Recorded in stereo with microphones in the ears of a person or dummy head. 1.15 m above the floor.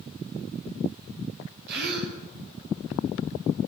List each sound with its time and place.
1.7 s a gasp: 65° right (ahead or behind), 5 m